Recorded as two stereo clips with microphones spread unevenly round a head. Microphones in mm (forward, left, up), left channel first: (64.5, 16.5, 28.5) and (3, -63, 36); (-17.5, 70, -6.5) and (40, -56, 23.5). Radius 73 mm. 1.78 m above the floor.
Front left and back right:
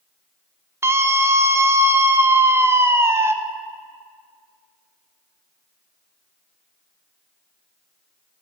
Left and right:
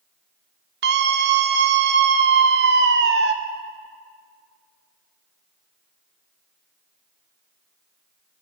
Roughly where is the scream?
Ahead right.